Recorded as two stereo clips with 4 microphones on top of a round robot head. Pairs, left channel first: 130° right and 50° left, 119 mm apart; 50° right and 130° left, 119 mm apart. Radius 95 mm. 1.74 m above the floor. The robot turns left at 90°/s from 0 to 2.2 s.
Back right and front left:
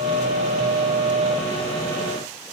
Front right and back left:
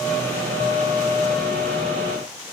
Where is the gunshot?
I don't hear a gunshot.